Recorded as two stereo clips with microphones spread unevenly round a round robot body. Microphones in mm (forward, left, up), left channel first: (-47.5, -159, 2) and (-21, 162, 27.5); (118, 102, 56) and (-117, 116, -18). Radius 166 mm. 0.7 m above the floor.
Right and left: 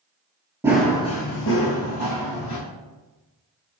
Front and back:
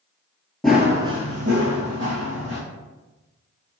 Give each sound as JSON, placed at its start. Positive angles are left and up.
{"t": 0.6, "sound": "running footsteps", "azimuth_deg": 30, "distance_m": 0.7}